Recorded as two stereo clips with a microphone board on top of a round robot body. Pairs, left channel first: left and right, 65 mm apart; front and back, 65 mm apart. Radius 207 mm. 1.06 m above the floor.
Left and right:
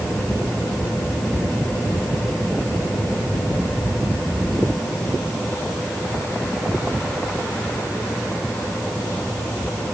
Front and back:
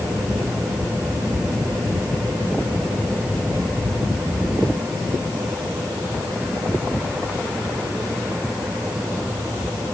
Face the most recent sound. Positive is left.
No sound to turn to.